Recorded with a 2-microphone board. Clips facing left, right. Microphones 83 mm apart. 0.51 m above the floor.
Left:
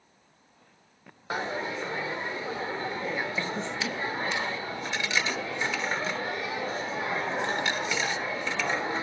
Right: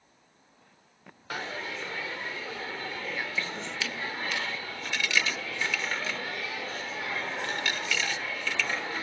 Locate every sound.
1.3 s a dropped coin: 25° left (ahead or behind), 0.6 m